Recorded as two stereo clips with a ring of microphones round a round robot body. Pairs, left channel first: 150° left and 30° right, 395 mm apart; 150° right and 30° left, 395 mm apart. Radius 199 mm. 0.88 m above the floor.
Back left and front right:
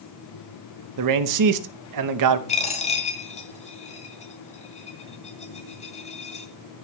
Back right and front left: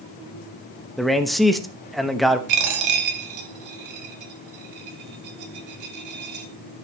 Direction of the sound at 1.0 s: 60° right.